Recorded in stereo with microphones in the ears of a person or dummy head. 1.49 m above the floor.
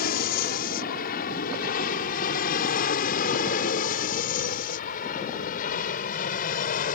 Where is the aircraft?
55° left (ahead or behind); by 7.0 s 50° left (ahead or behind).